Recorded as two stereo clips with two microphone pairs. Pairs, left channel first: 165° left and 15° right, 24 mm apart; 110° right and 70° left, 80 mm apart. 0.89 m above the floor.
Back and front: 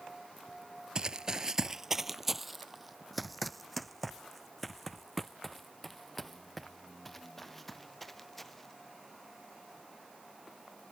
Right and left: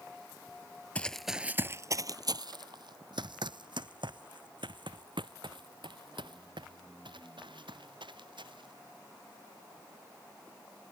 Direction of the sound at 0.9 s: 45° right.